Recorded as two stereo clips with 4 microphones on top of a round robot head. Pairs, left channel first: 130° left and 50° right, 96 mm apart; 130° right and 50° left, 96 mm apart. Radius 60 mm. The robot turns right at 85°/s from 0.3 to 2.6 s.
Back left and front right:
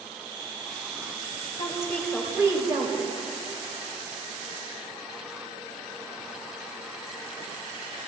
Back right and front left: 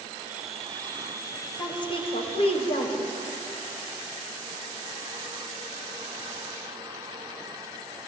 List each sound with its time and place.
1.6 s a woman speaking: 170° left, 1.8 m; by 3.0 s 100° right, 1.8 m